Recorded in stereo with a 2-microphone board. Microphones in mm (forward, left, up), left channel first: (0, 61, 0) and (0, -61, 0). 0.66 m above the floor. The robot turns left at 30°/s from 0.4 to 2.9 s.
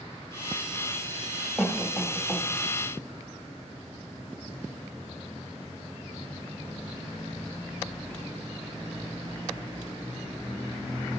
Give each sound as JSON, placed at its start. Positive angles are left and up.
{"t": 1.6, "sound": "a cough", "side_deg": 5, "distance_m": 1.1}